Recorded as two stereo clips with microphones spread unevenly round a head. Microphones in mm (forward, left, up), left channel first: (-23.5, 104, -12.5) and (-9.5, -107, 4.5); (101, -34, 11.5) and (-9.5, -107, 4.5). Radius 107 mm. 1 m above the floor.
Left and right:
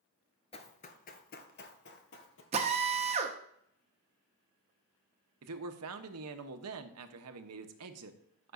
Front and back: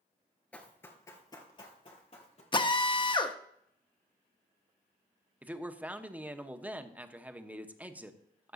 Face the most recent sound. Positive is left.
turn(degrees=-70)